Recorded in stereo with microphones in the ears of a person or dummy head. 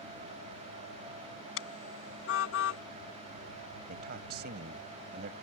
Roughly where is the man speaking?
Right.